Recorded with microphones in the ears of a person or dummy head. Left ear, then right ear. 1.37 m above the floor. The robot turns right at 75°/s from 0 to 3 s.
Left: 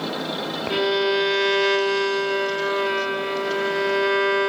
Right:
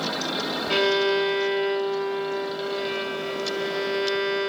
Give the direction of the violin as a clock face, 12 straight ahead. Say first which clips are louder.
Even; 1 o'clock.